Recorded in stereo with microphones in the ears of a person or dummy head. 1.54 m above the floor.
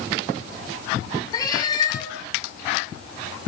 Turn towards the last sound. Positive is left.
turn(degrees=25)  # may be behind; listen again after turning